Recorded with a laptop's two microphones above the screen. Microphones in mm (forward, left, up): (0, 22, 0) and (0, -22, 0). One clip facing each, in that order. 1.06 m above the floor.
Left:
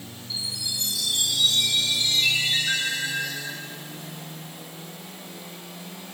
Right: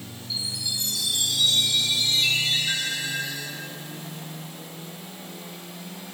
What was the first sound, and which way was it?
A chime, 20° left (ahead or behind).